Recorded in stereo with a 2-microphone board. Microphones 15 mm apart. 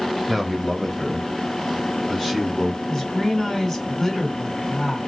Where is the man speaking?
20° right (ahead or behind), 1.1 m; by 2.8 s 5° left (ahead or behind), 2.5 m.